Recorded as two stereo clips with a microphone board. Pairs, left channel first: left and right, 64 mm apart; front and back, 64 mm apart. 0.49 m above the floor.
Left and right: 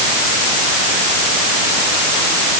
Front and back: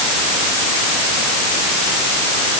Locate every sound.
Only background noise.